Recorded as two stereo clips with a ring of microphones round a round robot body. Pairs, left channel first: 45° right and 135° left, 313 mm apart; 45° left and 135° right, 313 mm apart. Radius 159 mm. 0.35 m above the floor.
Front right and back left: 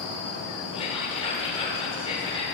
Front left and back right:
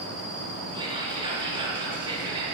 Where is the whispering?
85° right, 1.2 m.